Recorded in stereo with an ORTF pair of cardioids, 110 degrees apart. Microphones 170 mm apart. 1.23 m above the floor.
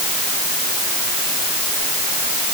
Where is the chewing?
I don't hear chewing.